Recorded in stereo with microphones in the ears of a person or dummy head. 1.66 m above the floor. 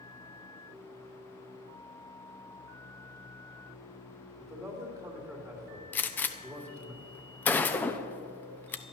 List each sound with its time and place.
4.4 s a man speaking: 15° right (ahead or behind), 3 m
5.9 s a gunshot: 10° left (ahead or behind), 0.7 m